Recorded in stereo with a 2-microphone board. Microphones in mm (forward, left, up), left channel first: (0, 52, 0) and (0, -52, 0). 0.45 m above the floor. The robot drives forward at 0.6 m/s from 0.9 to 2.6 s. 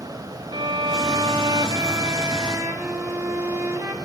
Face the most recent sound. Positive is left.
turn(degrees=-25)  # may be behind; listen again after turning